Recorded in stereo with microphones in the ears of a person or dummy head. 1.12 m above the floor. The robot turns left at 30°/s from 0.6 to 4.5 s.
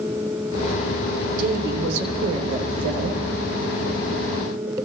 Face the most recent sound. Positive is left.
turn(degrees=-140)